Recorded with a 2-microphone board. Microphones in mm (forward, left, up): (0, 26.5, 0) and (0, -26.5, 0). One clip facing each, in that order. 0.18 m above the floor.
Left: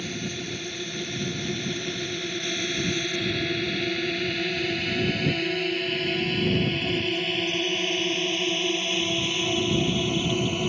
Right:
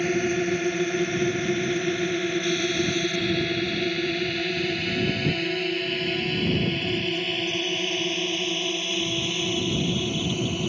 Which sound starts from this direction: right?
A drone, at 0.0 s.